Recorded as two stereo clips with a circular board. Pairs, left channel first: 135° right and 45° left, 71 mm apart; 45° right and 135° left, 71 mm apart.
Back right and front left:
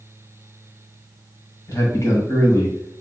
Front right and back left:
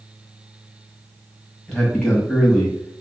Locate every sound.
1.7 s a man speaking: 120° right, 1.4 m